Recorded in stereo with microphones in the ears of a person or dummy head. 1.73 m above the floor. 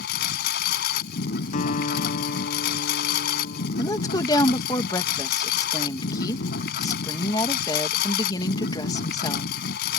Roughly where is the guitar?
Left.